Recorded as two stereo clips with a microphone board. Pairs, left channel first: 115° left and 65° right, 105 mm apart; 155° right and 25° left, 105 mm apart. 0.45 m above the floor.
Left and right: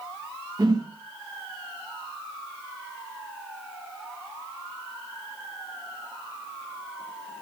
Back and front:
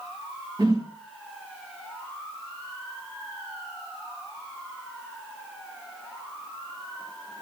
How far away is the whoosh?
About 2.5 m.